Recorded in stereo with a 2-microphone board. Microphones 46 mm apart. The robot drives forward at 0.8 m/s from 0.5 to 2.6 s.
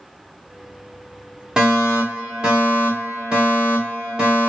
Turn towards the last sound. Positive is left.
turn(degrees=-15)  # may be behind; listen again after turning